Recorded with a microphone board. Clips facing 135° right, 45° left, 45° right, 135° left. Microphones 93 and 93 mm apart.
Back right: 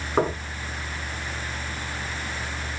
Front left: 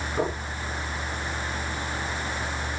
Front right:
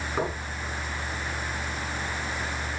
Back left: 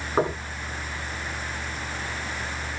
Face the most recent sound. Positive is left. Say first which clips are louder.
# back right 5 dB, back left 6 dB
turn(degrees=-170)